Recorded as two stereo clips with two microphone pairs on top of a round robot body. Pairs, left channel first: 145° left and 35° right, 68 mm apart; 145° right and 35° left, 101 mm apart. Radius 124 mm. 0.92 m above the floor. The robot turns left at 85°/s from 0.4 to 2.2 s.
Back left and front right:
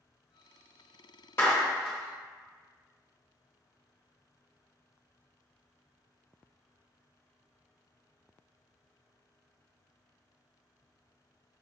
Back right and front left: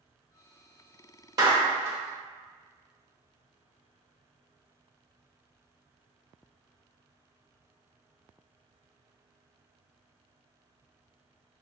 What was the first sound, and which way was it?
A clap, 90° left.